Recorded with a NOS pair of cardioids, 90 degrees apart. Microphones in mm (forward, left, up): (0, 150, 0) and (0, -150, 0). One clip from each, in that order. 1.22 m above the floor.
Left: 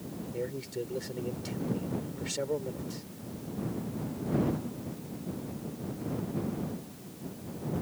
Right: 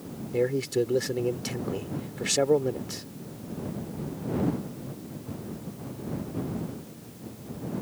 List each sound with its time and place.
0.3 s a man speaking: 65° right